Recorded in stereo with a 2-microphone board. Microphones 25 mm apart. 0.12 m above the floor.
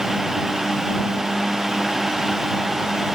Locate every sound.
Only background noise.